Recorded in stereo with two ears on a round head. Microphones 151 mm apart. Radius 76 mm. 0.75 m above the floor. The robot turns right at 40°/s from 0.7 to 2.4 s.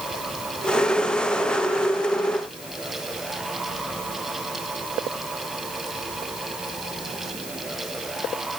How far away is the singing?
No singing in this recording.